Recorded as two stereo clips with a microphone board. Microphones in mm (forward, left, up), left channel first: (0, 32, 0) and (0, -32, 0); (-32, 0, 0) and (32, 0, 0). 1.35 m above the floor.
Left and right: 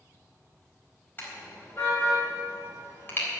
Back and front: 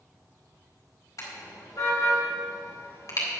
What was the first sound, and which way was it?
A car horn, 150° left.